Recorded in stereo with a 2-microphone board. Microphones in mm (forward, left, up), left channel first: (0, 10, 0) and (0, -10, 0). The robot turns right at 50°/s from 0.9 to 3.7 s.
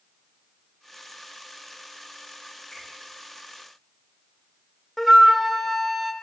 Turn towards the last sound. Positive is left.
turn(degrees=5)  # may be behind; listen again after turning